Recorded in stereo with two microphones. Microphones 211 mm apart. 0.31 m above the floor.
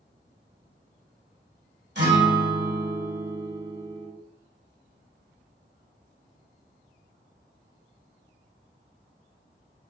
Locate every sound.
1.9 s a guitar: 55° right (ahead or behind), 1.5 m